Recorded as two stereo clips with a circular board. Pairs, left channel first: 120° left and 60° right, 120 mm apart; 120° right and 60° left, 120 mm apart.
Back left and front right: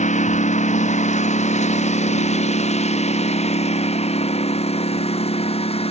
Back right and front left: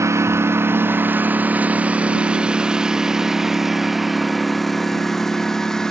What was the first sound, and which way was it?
A lawn mower, 125° left.